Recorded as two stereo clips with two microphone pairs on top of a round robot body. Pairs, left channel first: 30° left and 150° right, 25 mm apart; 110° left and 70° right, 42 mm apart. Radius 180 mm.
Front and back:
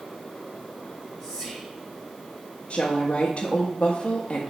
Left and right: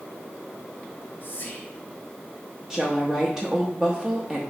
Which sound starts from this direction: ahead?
A woman speaking, at 2.7 s.